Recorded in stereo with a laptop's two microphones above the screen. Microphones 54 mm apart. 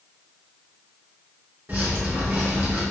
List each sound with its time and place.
1.7 s dripping: 35° right (ahead or behind), 0.9 m